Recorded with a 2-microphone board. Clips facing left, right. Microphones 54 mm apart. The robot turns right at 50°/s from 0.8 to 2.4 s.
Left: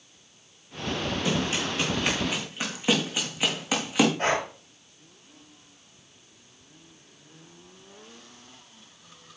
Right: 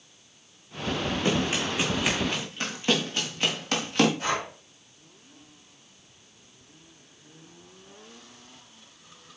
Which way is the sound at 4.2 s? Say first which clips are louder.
Left 3 dB; 45° left (ahead or behind).